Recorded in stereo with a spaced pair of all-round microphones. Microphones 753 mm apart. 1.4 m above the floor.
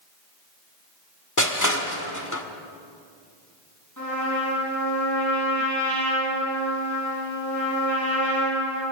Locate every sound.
1.4 s crushing: 25° left (ahead or behind), 1.8 m
4.0 s a trumpet: 25° left (ahead or behind), 8 m